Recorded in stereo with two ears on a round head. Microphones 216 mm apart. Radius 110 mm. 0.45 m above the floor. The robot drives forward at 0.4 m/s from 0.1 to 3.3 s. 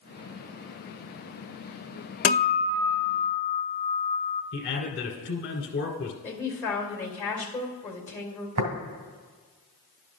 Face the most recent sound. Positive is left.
turn(degrees=-75)  # may be behind; listen again after turning